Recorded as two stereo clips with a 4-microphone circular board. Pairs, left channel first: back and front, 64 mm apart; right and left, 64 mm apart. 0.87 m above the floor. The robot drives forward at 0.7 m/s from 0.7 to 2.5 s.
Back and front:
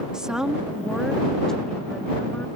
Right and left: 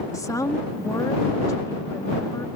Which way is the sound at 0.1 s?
75° right.